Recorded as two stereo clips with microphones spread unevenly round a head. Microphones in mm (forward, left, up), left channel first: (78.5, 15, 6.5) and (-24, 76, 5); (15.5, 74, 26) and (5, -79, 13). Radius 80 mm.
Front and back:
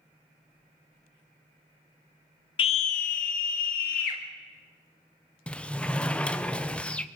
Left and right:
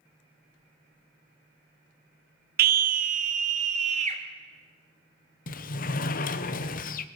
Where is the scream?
75° right, 0.5 m; by 4.2 s 45° right, 2.5 m.